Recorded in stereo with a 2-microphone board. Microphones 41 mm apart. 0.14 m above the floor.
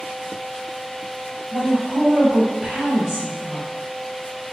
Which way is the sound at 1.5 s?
15° right (ahead or behind).